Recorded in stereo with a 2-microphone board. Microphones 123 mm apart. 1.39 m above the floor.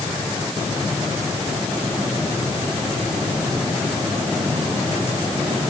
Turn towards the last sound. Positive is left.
No sound to turn to.